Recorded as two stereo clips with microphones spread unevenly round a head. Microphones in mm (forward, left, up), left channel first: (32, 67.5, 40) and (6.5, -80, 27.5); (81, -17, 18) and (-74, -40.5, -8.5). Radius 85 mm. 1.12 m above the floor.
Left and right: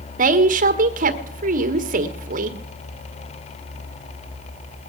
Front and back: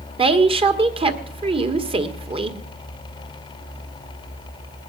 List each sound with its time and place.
0.2 s a woman speaking: 125° right, 1.6 m